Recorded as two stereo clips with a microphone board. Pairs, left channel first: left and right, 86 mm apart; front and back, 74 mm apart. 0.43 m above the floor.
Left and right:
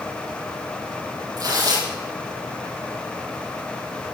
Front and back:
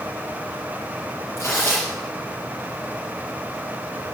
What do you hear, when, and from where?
1.4 s tearing paper: 55° right, 7.5 m